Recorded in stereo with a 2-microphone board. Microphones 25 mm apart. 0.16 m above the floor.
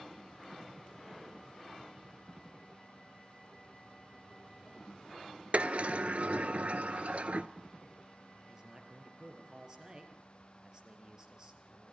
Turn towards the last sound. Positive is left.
turn(degrees=-25)  # may be behind; listen again after turning